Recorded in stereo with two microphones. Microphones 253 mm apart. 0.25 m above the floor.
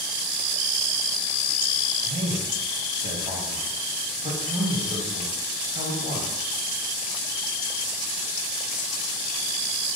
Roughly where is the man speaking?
Right.